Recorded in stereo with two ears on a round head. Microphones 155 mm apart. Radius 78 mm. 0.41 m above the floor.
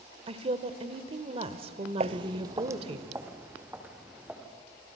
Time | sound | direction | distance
0.3 | a woman speaking | 35° right (ahead or behind) | 1.3 m
2.0 | footsteps | 40° right (ahead or behind) | 0.5 m